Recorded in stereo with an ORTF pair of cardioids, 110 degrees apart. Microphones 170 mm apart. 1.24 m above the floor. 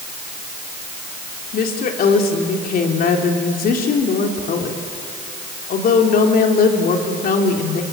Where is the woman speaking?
55° left, 3.5 m.